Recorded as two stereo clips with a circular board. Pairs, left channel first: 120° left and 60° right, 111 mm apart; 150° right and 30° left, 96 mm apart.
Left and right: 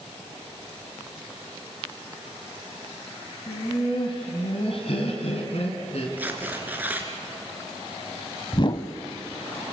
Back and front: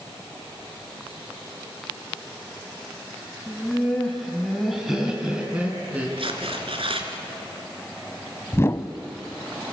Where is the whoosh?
155° left, 0.7 m.